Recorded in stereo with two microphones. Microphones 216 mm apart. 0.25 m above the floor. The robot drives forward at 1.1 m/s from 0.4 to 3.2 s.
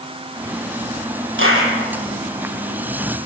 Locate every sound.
1.4 s a clap: 65° right (ahead or behind), 8 m; by 1.7 s 70° right (ahead or behind), 7.5 m